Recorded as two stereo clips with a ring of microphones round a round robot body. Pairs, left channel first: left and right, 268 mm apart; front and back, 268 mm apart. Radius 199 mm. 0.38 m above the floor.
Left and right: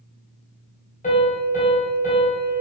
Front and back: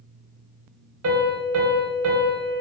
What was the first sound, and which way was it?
A piano, 155° left.